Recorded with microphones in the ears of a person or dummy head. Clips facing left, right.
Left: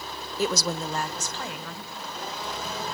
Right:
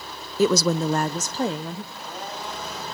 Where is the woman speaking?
75° right (ahead or behind), 0.6 m; by 1.8 s 15° right (ahead or behind), 1.1 m.